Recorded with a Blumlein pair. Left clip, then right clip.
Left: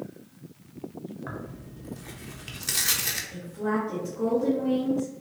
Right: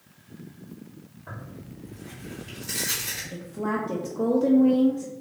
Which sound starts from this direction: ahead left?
Tearing paper, at 1.3 s.